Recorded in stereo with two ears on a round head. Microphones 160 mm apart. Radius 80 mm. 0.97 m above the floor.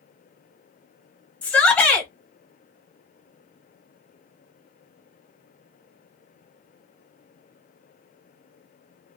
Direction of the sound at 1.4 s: 5° left (ahead or behind).